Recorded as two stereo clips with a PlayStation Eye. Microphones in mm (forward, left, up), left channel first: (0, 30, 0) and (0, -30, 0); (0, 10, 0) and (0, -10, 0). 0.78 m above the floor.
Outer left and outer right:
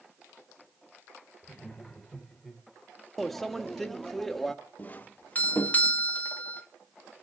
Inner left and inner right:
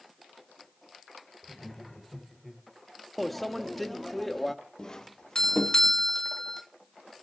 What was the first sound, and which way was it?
Laughter, 10° left (ahead or behind).